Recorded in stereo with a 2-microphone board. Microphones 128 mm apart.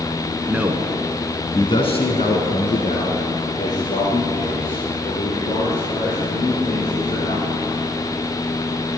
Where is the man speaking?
15° right (ahead or behind), 1.7 m; by 7.5 s 65° left (ahead or behind), 8.5 m.